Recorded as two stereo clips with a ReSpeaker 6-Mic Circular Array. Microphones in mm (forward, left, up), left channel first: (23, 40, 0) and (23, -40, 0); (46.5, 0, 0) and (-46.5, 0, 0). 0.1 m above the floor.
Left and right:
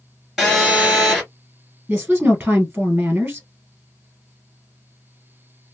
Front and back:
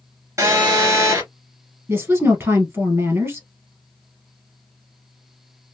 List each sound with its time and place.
0.4 s a phone buzzing: straight behind, 1.7 m
1.9 s a woman speaking: 145° right, 1.2 m